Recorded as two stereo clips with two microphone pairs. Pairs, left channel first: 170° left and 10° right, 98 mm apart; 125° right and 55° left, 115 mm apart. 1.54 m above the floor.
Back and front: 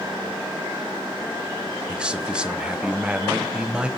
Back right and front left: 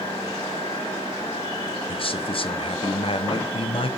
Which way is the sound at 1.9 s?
90° right.